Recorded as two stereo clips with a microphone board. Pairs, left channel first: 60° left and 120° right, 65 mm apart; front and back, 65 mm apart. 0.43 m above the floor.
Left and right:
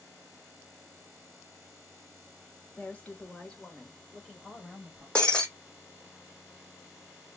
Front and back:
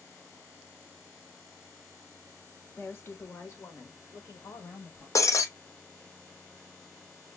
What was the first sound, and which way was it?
A woman speaking, 25° left.